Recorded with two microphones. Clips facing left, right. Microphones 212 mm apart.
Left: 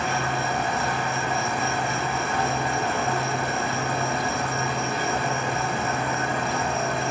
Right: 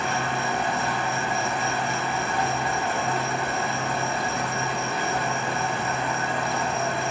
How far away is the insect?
About 1.2 m.